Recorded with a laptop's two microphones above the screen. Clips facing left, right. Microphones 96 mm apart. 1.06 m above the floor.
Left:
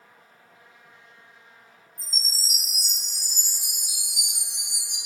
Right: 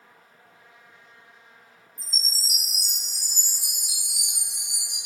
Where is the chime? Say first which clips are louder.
Even; 55° right (ahead or behind), 1.2 m.